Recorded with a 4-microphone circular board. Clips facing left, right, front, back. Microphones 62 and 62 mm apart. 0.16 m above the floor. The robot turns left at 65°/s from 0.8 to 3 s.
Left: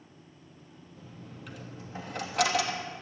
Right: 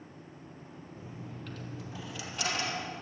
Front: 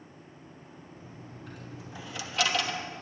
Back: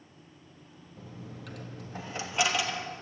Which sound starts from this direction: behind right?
A dropped coin, at 1.0 s.